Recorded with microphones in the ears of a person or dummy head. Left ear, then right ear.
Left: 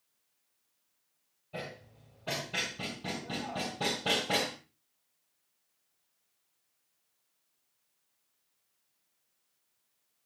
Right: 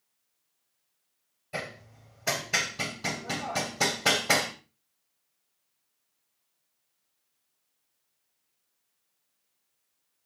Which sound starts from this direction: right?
Hammering, at 1.5 s.